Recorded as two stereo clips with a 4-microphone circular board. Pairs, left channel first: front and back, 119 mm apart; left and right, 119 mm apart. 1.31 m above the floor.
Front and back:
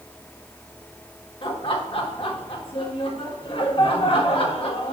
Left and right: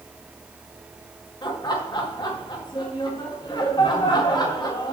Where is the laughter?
40° left, 1.8 m.